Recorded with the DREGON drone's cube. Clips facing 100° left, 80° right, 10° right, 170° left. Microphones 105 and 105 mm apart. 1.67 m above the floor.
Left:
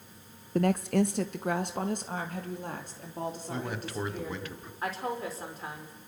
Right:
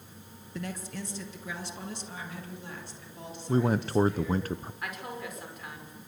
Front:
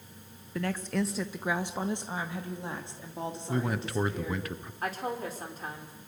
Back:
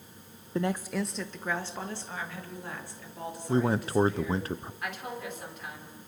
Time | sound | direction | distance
0.6 | a woman speaking | 120° left | 0.6 m
3.5 | a man speaking | 130° right | 1.0 m
4.8 | a woman speaking | 40° left | 5.5 m